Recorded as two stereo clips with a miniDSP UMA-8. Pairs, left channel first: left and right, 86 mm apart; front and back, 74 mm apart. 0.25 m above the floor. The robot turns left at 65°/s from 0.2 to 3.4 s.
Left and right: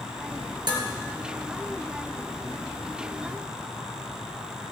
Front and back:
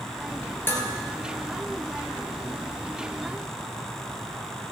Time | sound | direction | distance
0.7 | dishes clattering | 60° right | 3 m